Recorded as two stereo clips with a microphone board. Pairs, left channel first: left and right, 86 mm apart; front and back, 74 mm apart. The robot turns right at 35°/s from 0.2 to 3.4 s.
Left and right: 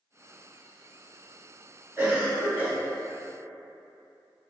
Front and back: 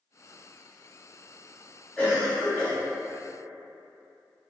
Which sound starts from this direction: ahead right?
A cough, at 2.0 s.